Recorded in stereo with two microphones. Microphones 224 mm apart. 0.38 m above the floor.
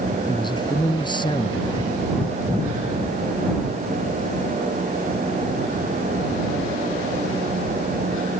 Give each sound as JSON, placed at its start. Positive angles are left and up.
{"t": 0.3, "sound": "a man speaking", "side_deg": 20}